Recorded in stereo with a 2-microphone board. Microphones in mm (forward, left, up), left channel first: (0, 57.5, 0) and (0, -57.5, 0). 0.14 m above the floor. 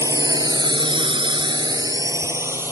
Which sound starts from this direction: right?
A drone, at 0.0 s.